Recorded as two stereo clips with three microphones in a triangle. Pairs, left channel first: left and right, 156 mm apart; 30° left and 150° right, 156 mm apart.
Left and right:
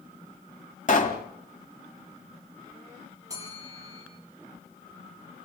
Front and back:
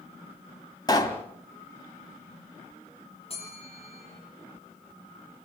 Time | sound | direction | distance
0.9 | a pop | 90° left | 2 m
3.3 | a bell | 20° right | 9.5 m